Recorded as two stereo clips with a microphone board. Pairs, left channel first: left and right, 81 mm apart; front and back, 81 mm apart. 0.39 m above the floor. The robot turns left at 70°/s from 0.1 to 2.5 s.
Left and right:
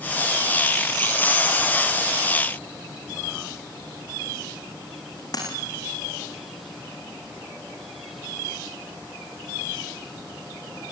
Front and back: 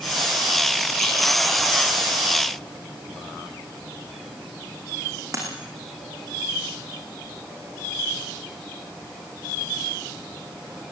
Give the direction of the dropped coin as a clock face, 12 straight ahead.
8 o'clock.